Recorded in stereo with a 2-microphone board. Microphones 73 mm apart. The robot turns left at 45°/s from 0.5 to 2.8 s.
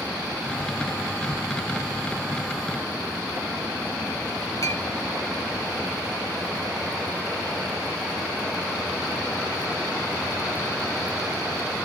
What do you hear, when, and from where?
4.6 s a clink: 55° left (ahead or behind), 3.5 m